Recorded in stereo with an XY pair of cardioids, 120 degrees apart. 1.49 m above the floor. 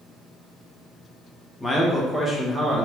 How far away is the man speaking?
About 1.1 m.